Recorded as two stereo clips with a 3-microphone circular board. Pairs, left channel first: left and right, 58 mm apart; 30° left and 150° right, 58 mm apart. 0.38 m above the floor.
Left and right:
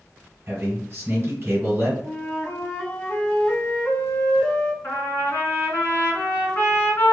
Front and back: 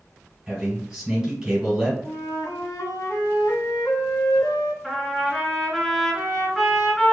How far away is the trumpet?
About 1.8 m.